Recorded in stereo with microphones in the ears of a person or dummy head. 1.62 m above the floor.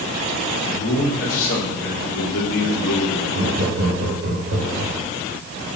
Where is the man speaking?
45° left (ahead or behind), 2.5 m; by 3.2 s 75° left (ahead or behind), 1.6 m.